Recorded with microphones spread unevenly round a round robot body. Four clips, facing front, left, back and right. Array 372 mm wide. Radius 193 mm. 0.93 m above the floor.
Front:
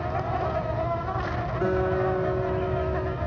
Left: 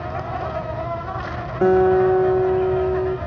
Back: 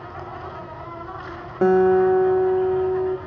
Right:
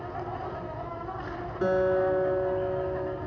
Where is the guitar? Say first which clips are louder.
Left 10 dB, back 10 dB; 140° left, 0.8 m.